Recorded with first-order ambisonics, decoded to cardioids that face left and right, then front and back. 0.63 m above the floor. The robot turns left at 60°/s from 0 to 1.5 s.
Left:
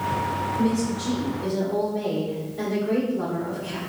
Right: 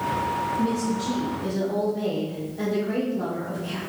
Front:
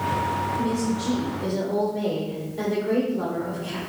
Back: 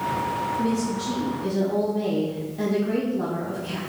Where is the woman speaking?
75° left, 2.5 m; by 3.8 s 20° left, 2.5 m.